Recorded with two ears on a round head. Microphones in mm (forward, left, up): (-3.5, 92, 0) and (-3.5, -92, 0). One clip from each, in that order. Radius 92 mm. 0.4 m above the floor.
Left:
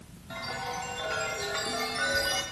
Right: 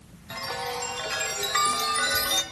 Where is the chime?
45° right (ahead or behind), 1.2 m.